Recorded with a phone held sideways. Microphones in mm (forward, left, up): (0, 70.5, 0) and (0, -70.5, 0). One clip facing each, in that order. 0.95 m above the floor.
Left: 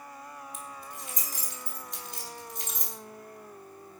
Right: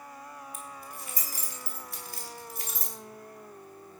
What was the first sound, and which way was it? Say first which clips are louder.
Keys jangling: even; 20° left (ahead or behind).